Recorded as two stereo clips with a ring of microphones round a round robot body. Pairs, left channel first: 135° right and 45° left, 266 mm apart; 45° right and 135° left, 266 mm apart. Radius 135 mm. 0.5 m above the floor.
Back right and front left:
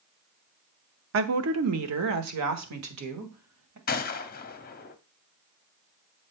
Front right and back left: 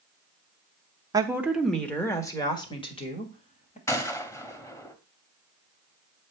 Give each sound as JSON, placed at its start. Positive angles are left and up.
{"t": 1.1, "sound": "a woman speaking", "azimuth_deg": 65, "distance_m": 1.0}
{"t": 3.9, "sound": "a gunshot", "azimuth_deg": -120, "distance_m": 0.9}